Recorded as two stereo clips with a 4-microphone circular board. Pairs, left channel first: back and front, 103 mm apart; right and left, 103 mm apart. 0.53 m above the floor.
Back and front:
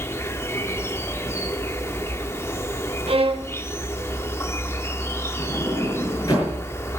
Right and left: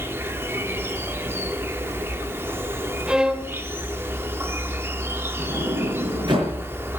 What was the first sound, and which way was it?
An insect, 140° left.